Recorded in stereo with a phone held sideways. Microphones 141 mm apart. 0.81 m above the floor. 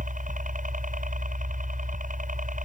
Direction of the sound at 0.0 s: 65° right (ahead or behind).